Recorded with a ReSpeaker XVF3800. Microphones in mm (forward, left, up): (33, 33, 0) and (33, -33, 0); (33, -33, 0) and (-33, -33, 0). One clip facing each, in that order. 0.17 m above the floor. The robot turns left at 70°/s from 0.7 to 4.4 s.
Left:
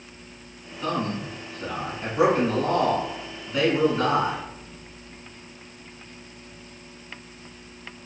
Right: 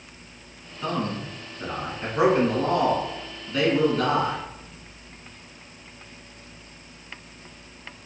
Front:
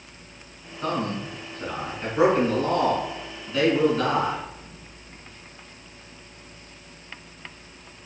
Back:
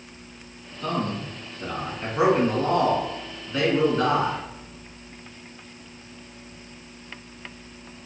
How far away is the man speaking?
About 1.4 m.